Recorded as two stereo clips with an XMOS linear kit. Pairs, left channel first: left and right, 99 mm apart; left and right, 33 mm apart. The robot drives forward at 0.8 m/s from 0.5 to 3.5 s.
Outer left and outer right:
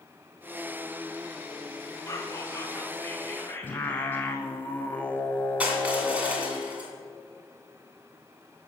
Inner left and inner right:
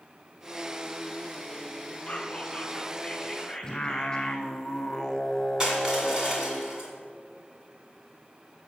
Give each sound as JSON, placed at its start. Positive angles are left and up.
{"t": 2.1, "sound": "whispering", "side_deg": 30, "distance_m": 1.3}
{"t": 3.6, "sound": "singing", "side_deg": 20, "distance_m": 0.6}
{"t": 5.6, "sound": "crushing", "side_deg": -15, "distance_m": 1.9}